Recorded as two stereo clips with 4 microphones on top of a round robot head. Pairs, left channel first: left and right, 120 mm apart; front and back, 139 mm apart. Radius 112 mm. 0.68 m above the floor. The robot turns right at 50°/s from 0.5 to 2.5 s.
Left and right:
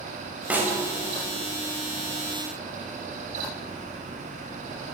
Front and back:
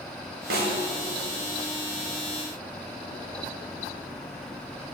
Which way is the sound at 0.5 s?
170° right.